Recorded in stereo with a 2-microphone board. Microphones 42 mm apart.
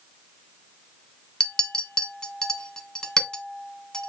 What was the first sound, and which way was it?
A clink, 15° left (ahead or behind).